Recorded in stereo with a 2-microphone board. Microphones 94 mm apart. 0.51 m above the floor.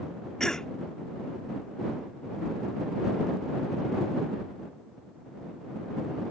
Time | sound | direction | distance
0.4 | a cough | 5° left (ahead or behind) | ?